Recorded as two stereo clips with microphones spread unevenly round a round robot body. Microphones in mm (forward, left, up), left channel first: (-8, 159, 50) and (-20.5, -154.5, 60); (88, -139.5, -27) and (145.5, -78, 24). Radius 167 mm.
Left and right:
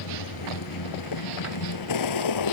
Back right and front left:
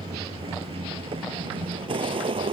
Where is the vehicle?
60° left.